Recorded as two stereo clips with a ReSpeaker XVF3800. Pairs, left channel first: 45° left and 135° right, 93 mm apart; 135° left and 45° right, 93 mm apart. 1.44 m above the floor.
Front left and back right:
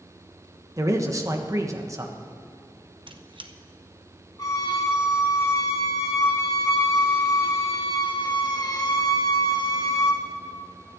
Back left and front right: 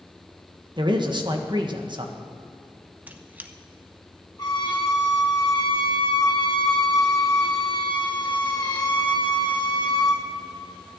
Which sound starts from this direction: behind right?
A squeak, at 3.1 s.